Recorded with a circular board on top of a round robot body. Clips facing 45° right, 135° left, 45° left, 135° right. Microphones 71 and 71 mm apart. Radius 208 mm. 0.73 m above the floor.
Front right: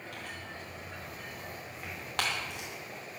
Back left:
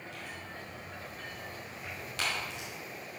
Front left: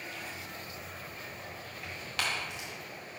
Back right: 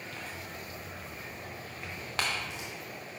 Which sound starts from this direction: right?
Tearing paper, at 0.1 s.